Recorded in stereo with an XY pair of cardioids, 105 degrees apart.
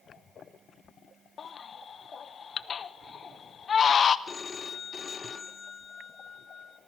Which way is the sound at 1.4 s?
45° left.